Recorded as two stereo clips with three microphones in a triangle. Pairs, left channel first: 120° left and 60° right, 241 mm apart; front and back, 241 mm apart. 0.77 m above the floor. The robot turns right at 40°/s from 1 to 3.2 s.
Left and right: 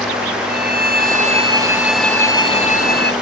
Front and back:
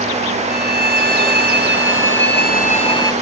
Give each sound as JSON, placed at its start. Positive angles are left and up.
{"t": 0.5, "sound": "a violin", "azimuth_deg": -10}